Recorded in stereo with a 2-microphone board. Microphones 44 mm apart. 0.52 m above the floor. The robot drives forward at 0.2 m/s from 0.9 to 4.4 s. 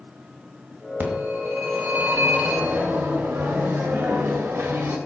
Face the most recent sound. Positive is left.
turn(degrees=-75)  # may be behind; listen again after turning